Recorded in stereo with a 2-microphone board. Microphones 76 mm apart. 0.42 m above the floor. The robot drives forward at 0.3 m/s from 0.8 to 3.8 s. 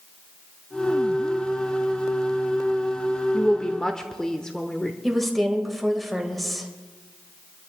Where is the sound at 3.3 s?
10° left (ahead or behind), 0.8 m.